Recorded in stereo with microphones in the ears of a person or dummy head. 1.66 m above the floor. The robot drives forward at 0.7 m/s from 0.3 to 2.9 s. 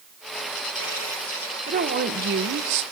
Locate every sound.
1.7 s a woman speaking: 40° right (ahead or behind), 1.9 m; by 2.8 s 65° right (ahead or behind), 1.4 m